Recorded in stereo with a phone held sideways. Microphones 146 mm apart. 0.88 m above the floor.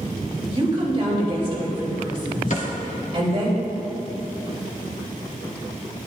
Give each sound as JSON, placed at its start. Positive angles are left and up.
{"t": 0.5, "sound": "a woman speaking", "side_deg": -40, "distance_m": 3.0}
{"t": 2.5, "sound": "a cupboard door", "side_deg": 55, "distance_m": 1.4}